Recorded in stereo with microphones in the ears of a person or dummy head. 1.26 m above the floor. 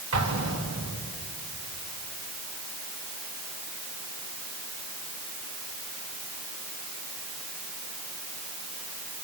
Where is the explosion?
70° right (ahead or behind), 2.5 m.